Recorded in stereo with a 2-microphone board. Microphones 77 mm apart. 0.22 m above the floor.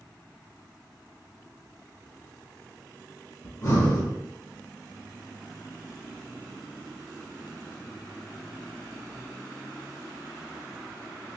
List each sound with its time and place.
3.4 s breathing: 50° left (ahead or behind), 1.5 m